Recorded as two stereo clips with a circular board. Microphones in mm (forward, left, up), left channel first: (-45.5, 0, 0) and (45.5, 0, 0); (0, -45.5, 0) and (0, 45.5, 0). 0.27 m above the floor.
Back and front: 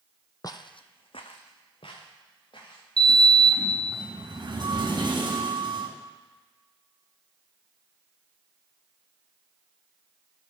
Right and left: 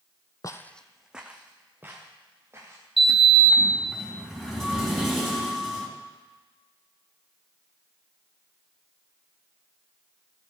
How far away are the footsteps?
About 0.6 m.